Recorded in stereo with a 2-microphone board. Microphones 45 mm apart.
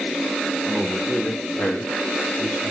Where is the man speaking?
10° right (ahead or behind), 0.8 m; by 2.7 s 80° left, 1.9 m.